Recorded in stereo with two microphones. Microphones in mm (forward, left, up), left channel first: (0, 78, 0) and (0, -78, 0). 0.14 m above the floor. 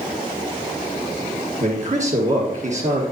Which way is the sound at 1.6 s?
50° right (ahead or behind).